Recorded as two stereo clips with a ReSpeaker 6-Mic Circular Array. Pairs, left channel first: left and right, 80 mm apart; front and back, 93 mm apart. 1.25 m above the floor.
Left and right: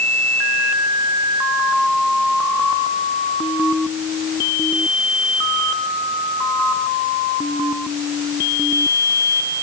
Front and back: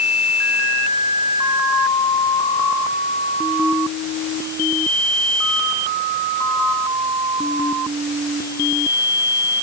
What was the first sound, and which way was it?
Only background noise.